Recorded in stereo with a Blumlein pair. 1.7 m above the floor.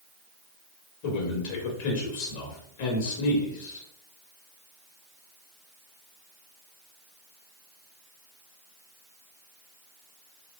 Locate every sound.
1.0 s a man speaking: 50° left, 2 m